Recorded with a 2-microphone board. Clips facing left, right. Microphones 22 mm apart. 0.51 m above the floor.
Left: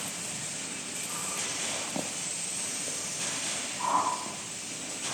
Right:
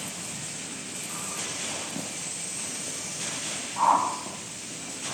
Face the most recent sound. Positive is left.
turn(degrees=-70)  # may be behind; listen again after turning